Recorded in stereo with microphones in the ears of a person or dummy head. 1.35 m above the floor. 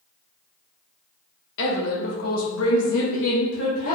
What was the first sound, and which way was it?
A woman speaking, 60° left (ahead or behind).